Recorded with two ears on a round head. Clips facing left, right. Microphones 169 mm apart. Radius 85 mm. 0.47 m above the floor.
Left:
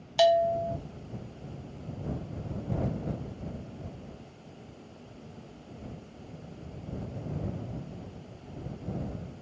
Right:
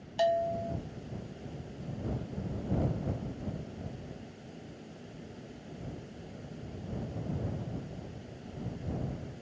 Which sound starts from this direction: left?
A bell, at 0.2 s.